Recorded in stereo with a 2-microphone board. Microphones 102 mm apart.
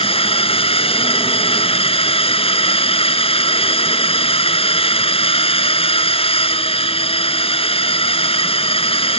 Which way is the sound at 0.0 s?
70° left (ahead or behind).